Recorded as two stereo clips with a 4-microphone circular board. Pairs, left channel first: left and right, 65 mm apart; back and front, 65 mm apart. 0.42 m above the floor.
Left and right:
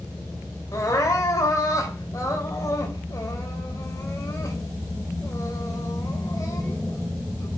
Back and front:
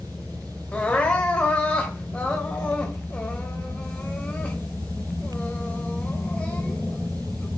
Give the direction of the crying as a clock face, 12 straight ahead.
8 o'clock.